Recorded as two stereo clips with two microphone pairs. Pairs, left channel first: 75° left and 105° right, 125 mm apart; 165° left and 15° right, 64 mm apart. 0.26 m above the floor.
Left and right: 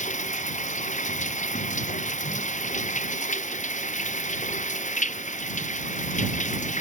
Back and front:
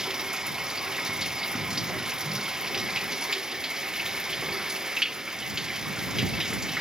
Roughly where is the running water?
Ahead left.